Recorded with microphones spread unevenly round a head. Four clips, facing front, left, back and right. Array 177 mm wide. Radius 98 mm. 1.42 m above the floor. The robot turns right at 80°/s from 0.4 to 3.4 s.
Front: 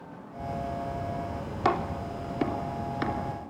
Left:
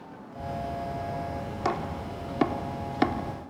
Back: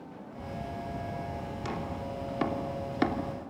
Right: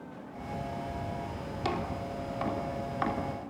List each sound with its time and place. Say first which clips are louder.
1.6 s chopping: left 3 dB, front 11 dB; 20° left, 3 m; by 3.5 s 160° left, 3 m